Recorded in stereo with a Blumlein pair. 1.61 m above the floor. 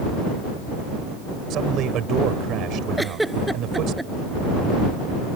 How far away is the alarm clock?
I don't hear an alarm clock.